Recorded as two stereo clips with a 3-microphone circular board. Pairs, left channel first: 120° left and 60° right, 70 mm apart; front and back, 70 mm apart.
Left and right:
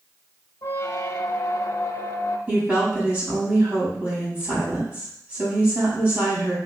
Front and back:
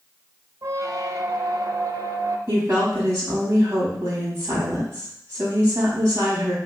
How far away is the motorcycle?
No motorcycle in this recording.